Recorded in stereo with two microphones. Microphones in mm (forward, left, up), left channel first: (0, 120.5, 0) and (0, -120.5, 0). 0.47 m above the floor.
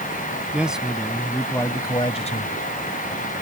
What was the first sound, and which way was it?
A man speaking, 5° right (ahead or behind).